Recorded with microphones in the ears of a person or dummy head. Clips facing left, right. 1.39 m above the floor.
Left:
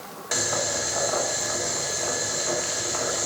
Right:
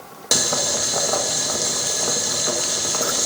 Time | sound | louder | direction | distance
0.3 | boiling | right 3 dB | 55° right (ahead or behind) | 1.1 m